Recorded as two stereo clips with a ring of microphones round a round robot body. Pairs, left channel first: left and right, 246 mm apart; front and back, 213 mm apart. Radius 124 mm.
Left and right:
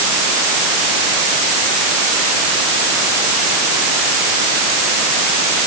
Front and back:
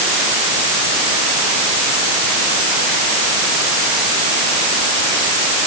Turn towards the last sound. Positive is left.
No sound to turn to.